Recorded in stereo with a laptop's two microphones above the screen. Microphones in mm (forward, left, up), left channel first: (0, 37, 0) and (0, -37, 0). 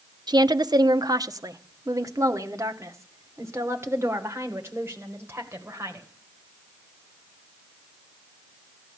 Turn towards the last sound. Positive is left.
turn(degrees=-30)  # may be behind; listen again after turning